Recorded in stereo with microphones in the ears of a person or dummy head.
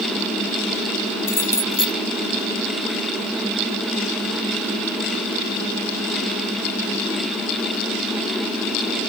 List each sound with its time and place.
1.3 s keys jangling: 15° left (ahead or behind)